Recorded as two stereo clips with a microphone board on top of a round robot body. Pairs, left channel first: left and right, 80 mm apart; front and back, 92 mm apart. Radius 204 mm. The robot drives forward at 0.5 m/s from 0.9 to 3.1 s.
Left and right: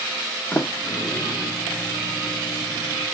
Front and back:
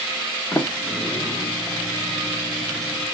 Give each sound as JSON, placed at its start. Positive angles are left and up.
{"t": 0.5, "sound": "a sliding door", "azimuth_deg": 40, "distance_m": 1.6}